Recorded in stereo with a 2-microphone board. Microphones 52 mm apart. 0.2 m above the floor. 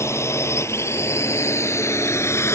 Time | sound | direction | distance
0.0 | a drone | 65° left (ahead or behind) | ?